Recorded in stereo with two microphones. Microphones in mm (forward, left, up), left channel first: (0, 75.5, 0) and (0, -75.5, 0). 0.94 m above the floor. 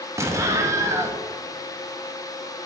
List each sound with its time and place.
0.2 s an explosion: 20° right (ahead or behind), 0.6 m